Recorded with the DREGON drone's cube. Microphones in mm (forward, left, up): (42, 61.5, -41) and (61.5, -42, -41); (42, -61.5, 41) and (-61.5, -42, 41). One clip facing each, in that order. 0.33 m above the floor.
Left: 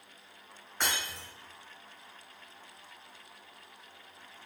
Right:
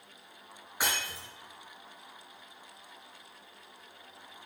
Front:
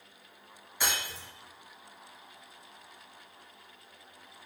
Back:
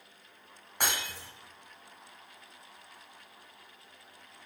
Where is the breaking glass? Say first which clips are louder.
Right 1 dB, even; 160° right, 1.8 m.